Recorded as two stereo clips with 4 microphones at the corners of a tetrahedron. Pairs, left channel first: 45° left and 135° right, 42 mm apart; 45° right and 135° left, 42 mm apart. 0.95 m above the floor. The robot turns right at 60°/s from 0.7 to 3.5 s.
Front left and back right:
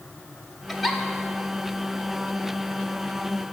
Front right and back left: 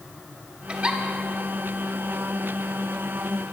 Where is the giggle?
125° left, 0.6 m; by 1.0 s 145° left, 0.6 m.